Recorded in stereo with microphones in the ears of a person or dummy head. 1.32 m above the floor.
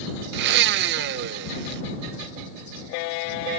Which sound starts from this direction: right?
A blender, at 0.3 s.